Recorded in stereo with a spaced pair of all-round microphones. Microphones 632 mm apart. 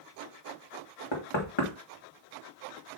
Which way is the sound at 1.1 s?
50° left (ahead or behind).